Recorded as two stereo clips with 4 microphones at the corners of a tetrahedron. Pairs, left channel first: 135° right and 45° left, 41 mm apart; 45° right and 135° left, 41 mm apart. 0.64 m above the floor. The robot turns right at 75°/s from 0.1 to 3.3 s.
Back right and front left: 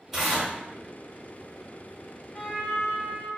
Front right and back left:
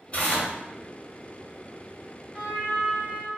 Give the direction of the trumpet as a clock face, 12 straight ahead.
3 o'clock.